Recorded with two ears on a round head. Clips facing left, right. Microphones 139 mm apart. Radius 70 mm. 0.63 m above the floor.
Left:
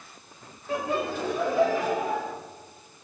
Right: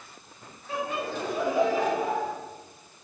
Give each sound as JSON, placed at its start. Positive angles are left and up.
{"t": 0.7, "sound": "laughter", "side_deg": 45, "distance_m": 0.8}